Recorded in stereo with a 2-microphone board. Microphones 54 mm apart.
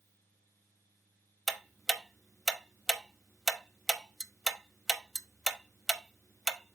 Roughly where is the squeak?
No squeak in this recording.